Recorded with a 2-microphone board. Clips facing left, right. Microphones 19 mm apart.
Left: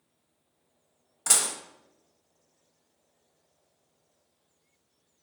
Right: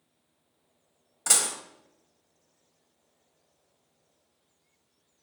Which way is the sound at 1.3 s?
5° right (ahead or behind).